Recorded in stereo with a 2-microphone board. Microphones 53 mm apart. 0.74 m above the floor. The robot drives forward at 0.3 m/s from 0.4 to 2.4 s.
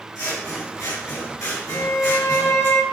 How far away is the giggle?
I don't hear a giggle.